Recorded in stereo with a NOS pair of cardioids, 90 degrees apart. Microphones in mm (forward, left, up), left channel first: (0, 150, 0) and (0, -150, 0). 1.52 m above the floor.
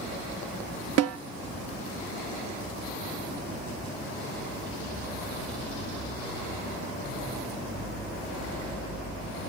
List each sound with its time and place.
1.0 s a snare drum: 55° right, 0.6 m